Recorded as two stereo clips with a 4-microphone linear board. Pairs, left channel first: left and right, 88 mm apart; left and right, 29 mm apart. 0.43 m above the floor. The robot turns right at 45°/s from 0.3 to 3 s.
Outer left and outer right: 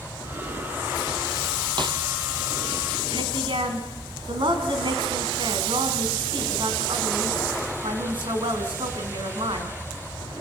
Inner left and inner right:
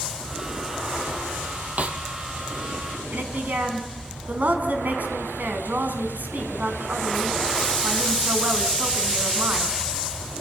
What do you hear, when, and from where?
1.8 s a snare drum: 60° right (ahead or behind), 2.5 m; by 2.0 s 70° right (ahead or behind), 2.5 m
3.1 s a woman speaking: 75° right (ahead or behind), 4 m